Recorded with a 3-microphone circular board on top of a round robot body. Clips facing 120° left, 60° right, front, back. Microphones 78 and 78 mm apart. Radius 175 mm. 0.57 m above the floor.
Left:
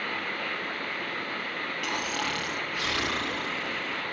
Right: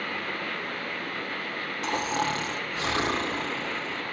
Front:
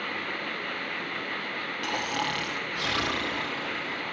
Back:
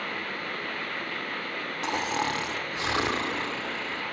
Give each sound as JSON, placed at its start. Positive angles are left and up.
{"t": 1.8, "sound": "snoring", "azimuth_deg": -115, "distance_m": 2.5}